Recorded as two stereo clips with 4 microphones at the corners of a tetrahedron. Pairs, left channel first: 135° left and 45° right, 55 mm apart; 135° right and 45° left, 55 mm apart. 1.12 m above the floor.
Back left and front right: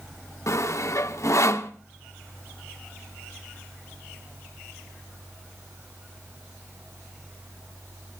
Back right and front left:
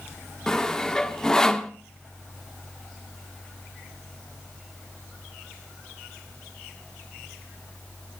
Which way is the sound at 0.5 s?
145° left.